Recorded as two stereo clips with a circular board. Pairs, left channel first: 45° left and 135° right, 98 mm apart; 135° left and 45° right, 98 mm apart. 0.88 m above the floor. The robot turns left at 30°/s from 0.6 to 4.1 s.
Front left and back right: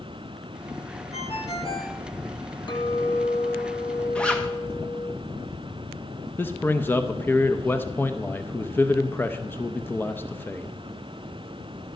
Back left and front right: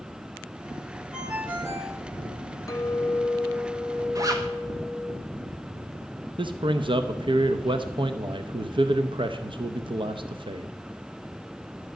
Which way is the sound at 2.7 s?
80° left.